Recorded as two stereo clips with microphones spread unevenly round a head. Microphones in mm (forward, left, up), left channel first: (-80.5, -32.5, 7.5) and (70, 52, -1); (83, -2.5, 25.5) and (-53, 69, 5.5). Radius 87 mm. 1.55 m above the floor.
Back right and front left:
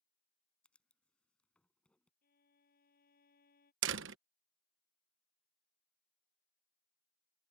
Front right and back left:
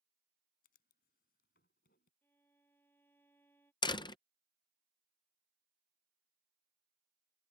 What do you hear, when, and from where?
0.6 s writing: 65° right
2.2 s a violin: 105° right
3.8 s a door slam: 30° left